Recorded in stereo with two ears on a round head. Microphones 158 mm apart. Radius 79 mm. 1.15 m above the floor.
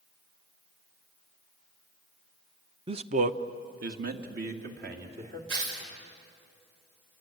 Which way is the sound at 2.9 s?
30° right (ahead or behind).